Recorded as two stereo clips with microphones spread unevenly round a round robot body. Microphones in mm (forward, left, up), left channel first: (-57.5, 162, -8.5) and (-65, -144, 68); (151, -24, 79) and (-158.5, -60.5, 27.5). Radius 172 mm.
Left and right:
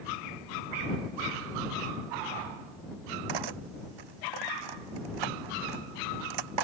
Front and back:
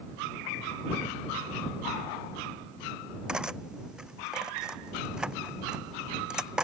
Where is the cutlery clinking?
85° right.